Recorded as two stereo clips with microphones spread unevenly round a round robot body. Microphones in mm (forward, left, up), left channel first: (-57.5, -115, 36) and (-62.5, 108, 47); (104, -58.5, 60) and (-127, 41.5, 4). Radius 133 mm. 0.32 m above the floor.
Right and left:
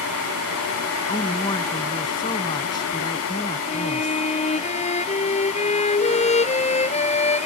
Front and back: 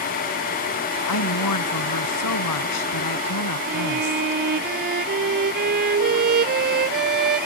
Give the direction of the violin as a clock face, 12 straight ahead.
5 o'clock.